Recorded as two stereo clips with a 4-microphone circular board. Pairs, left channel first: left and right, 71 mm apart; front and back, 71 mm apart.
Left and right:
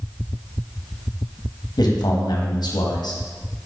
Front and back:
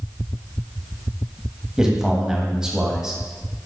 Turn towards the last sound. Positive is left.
turn(degrees=100)